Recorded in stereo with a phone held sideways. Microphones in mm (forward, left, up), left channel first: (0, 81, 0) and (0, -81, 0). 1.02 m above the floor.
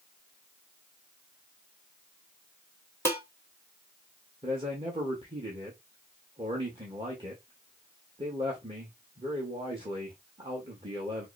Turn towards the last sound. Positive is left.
turn(degrees=-35)  # may be behind; listen again after turning